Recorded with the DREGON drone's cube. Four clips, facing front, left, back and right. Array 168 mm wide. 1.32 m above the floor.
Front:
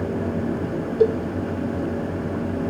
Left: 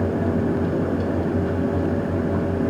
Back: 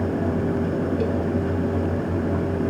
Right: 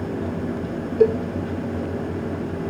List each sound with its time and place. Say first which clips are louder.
1.0 s a cowbell: right 8 dB, front 6 dB; 55° right